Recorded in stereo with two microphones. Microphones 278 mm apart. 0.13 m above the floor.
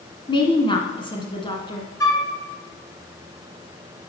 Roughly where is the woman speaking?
Centre.